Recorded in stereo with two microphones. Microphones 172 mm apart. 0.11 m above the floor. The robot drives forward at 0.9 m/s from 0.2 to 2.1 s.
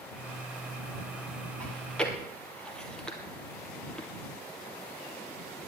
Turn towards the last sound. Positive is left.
turn(degrees=5)  # may be behind; listen again after turning